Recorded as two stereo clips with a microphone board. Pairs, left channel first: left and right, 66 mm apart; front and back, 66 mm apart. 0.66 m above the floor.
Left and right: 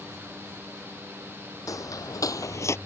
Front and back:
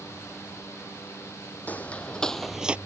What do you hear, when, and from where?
1.7 s footsteps: 60° left; by 2.8 s 115° left